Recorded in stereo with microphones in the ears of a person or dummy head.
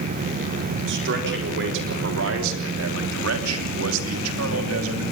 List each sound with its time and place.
0.9 s a man speaking: 60° right (ahead or behind), 4 m; by 5.0 s 70° right (ahead or behind), 3 m